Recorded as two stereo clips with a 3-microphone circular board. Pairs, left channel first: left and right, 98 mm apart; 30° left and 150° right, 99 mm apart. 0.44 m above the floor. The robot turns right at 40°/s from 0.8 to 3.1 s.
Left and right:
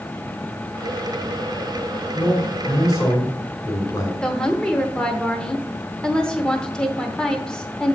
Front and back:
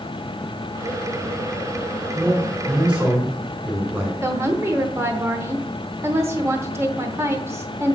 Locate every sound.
2.1 s a man speaking: 105° left, 2 m; by 4.1 s 145° left, 2 m
4.2 s a woman speaking: 165° left, 0.9 m